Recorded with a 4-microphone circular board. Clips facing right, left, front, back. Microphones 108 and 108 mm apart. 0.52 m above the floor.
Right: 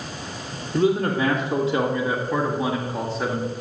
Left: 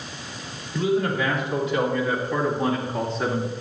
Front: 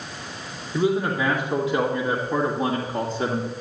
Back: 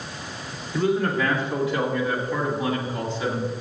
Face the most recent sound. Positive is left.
turn(degrees=5)